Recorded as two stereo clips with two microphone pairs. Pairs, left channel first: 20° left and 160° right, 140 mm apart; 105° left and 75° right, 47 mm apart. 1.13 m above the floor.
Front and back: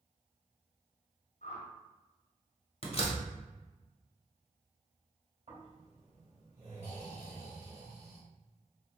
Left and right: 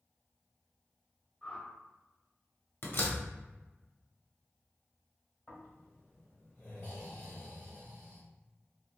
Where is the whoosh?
30° left, 0.7 m.